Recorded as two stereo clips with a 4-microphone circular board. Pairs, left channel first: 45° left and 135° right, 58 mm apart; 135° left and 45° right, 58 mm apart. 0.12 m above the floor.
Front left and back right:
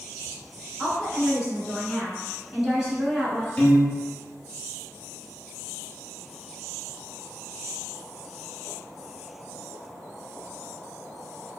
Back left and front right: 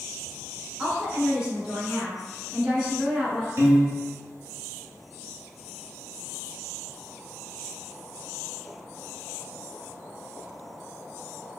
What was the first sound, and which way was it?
A woman speaking, 85° right.